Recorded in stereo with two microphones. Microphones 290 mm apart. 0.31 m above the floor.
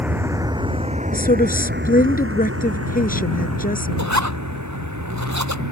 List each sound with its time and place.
0.0 s a vehicle: 5° right (ahead or behind); by 5.7 s 80° right
1.1 s a woman speaking: 30° left (ahead or behind)
4.0 s a zipper: 70° right (ahead or behind)